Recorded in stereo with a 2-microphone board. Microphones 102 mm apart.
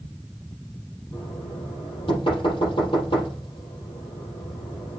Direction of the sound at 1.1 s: 65° left (ahead or behind).